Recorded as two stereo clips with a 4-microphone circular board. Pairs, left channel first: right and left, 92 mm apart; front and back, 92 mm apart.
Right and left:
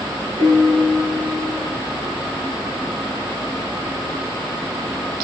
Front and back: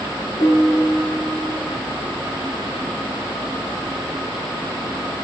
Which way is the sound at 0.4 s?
50° left.